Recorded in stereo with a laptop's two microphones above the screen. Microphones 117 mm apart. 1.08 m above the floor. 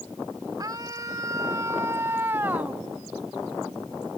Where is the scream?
35° right (ahead or behind); by 2.8 s 15° right (ahead or behind).